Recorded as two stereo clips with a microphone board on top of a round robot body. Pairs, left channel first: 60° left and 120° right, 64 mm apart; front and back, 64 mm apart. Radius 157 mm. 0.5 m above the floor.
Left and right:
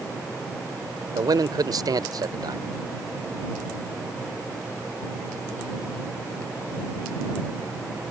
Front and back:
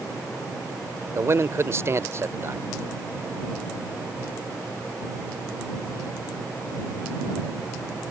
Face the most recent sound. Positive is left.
turn(degrees=-130)